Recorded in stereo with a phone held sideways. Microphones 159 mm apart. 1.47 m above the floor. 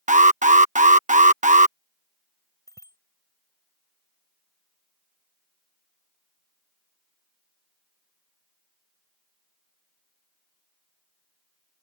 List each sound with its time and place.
0.1 s an alarm: 50° right (ahead or behind)
2.7 s a bicycle bell: 20° left (ahead or behind)